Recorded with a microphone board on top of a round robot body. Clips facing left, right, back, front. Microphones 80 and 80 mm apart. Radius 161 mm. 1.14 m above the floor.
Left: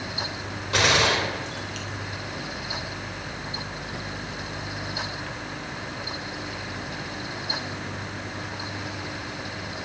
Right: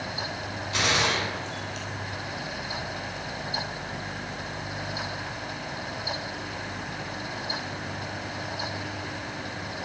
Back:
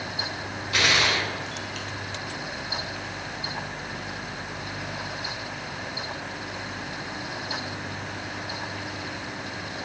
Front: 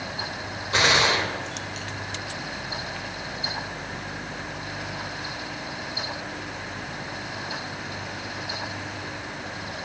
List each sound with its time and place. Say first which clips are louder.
0.7 s a gunshot: left 4 dB, front 3 dB; 60° left, 4.5 m